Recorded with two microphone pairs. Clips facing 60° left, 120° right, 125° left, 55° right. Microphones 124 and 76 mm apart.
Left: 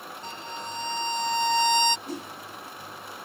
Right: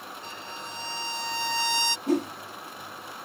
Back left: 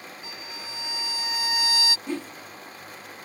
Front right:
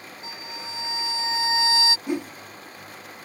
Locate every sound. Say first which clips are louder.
0.2 s a violin: left 6 dB, front right 6 dB; 10° left
2.1 s a whoosh: right 11 dB, front right 4 dB; 130° right